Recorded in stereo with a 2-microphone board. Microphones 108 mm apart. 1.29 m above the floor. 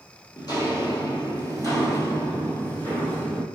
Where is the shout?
No shout in this recording.